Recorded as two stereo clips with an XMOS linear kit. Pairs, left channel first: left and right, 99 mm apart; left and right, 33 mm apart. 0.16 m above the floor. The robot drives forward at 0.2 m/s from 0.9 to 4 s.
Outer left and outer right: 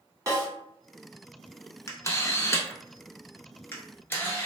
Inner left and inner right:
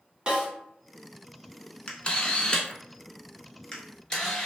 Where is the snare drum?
25° right (ahead or behind), 1.6 m.